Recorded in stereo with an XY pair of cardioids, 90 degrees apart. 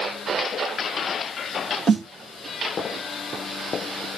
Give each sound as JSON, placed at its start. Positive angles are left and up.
{"t": 1.9, "sound": "a snare drum", "azimuth_deg": -50, "distance_m": 2.0}